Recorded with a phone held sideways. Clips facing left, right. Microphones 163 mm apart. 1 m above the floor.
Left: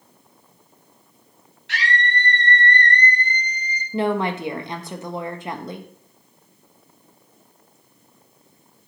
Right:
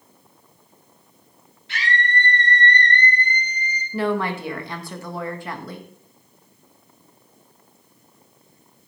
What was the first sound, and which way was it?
A scream, 75° left (ahead or behind).